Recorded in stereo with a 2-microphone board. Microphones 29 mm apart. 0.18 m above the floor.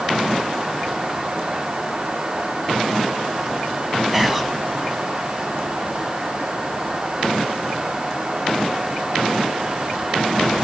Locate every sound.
4.1 s whispering: 10° right (ahead or behind), 1.1 m